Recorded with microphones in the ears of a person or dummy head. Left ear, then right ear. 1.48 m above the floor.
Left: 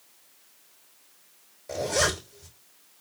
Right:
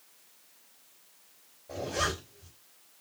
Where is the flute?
No flute in this recording.